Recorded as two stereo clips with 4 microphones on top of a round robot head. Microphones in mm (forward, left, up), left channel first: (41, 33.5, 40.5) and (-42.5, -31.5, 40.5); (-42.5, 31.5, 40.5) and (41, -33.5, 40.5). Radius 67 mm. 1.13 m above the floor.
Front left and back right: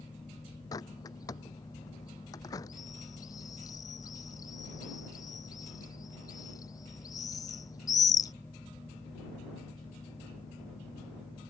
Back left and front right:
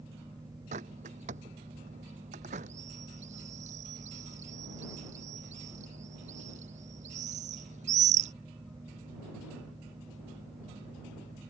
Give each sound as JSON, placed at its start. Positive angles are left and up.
{"t": 0.7, "sound": "a bird", "azimuth_deg": -20}